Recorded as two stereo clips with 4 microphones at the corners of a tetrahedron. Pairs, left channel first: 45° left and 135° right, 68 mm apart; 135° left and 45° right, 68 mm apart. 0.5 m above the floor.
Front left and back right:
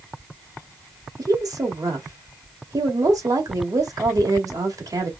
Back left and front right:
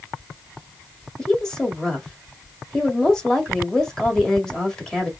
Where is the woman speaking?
145° right, 1.8 m.